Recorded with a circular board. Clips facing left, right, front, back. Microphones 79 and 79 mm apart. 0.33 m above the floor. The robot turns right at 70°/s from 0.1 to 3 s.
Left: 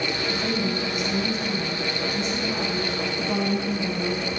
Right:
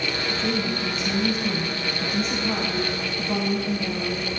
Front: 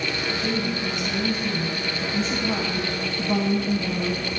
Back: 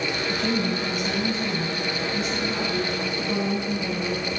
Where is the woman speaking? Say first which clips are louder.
Right 1 dB, back 1 dB; 165° left, 2.5 m; by 4.3 s 5° right, 2.5 m.